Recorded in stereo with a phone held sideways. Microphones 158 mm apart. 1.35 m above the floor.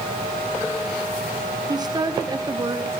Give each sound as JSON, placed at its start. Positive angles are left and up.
{"t": 1.7, "sound": "a woman speaking", "side_deg": -25, "distance_m": 2.5}